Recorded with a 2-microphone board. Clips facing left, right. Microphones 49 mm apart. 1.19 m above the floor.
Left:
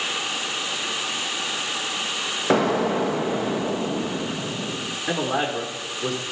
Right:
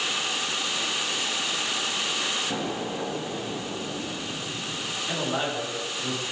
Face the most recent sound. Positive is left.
turn(degrees=65)  # may be behind; listen again after turning